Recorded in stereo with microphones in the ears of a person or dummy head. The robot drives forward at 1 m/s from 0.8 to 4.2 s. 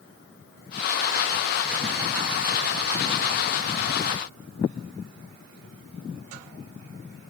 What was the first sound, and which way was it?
Only background noise.